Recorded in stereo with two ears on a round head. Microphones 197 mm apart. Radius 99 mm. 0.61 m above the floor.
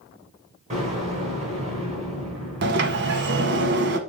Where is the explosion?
30° right (ahead or behind), 3 m.